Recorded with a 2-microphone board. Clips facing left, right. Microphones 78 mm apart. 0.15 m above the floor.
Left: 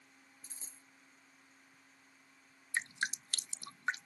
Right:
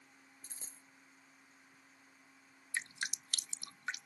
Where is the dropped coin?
55° right (ahead or behind).